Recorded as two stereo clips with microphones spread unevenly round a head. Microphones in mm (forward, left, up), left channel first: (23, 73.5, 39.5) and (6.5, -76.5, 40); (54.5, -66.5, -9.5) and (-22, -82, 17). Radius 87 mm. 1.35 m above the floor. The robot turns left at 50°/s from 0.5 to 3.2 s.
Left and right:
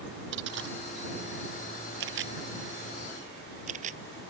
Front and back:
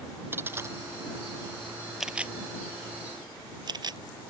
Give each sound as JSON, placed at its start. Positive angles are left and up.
{"t": 0.3, "sound": "a dropped coin", "azimuth_deg": -110}
{"t": 2.0, "sound": "a camera shutter", "azimuth_deg": -85}